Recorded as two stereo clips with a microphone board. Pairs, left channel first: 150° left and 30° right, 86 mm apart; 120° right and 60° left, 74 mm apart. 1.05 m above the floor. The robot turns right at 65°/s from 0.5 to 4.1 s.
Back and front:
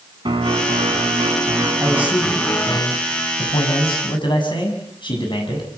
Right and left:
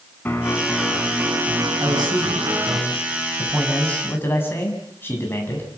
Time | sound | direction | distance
0.2 | a piano | 55° right | 4 m
1.8 | a man speaking | 30° left | 7 m